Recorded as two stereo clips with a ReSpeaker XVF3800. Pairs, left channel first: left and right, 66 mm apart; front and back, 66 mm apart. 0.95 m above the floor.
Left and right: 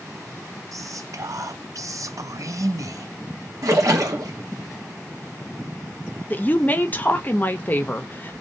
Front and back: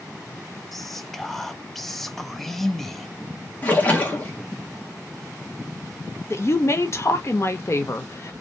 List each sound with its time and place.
0.7 s whispering: 85° right, 0.6 m
3.6 s a splash: 65° right, 1.2 m
6.3 s a woman speaking: 35° left, 0.8 m